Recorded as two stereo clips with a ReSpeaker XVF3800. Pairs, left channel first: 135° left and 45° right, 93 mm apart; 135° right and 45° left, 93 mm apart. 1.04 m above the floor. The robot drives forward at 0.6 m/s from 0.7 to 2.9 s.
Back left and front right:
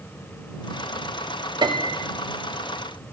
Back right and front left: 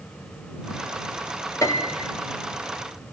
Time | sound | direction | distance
1.6 | a piano | 80° right | 1.4 m